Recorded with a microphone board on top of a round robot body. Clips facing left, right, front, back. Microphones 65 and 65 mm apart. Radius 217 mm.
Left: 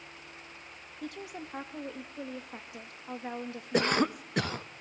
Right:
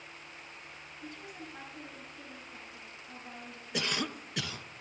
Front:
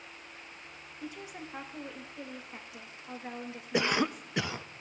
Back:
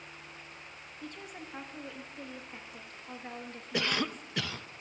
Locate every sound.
1.0 s a woman speaking: 80° left, 1.1 m
3.7 s a cough: 60° left, 0.6 m